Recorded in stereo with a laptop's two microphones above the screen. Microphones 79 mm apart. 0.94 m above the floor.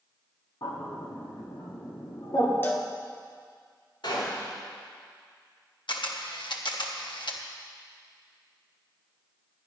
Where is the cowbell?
30° left (ahead or behind), 0.9 m.